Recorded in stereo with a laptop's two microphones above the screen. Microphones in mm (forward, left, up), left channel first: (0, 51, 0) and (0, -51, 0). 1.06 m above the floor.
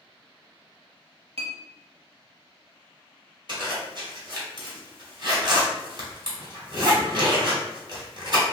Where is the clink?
80° right, 0.9 m.